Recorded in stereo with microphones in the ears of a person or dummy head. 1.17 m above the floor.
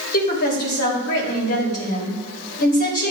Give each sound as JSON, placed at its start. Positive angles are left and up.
{"t": 0.1, "sound": "a woman speaking", "side_deg": 55, "distance_m": 2.5}